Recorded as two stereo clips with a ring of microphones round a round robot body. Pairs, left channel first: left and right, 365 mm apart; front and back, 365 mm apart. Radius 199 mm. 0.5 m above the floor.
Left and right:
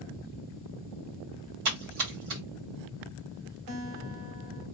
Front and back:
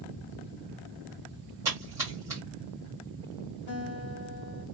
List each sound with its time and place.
1.6 s a splash: 100° right, 1.8 m
3.7 s a guitar: 45° right, 1.4 m